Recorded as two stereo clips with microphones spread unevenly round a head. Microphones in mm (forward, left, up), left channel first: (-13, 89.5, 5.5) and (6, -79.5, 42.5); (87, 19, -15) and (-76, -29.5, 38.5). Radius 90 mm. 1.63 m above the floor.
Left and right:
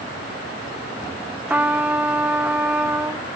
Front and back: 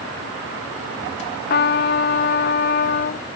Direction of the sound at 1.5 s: 20° right.